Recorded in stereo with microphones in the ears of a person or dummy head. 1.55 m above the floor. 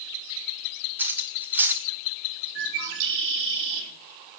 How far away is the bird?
About 3.5 m.